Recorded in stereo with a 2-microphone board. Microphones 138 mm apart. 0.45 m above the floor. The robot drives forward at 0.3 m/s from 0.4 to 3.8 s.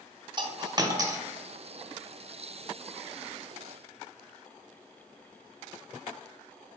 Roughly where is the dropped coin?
Right.